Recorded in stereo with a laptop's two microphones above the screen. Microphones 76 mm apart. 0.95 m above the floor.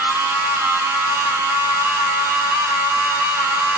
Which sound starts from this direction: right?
A machine running, at 0.0 s.